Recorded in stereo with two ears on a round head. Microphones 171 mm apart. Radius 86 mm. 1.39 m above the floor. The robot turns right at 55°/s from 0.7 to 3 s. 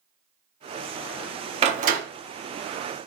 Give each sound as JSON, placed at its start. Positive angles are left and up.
{"t": 1.6, "sound": "a door slam", "side_deg": -35, "distance_m": 1.8}